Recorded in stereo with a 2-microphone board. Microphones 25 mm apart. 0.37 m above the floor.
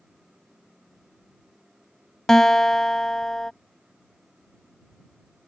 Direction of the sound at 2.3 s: 20° left (ahead or behind).